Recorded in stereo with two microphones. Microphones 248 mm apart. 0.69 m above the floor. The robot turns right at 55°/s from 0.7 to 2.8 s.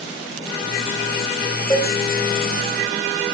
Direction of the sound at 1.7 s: 15° left (ahead or behind).